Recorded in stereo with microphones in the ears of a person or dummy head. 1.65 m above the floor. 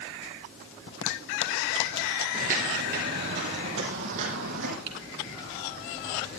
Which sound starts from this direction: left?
A zipper, at 0.9 s.